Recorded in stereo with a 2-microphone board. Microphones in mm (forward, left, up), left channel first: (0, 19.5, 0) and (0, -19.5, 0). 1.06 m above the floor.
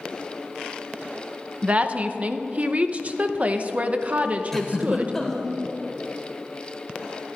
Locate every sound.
1.6 s a woman speaking: 40° right (ahead or behind), 0.7 m
4.5 s a giggle: 10° left (ahead or behind), 1.6 m